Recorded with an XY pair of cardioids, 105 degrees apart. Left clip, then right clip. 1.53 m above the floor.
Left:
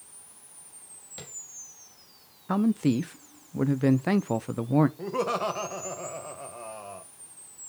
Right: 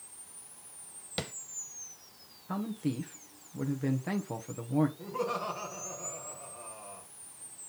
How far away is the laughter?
About 1.4 m.